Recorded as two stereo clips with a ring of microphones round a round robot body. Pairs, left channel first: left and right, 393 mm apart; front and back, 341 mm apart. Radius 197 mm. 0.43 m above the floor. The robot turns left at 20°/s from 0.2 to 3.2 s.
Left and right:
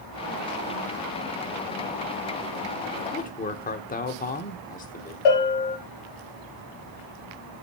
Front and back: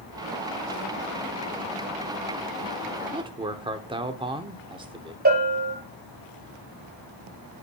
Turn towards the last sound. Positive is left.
turn(degrees=115)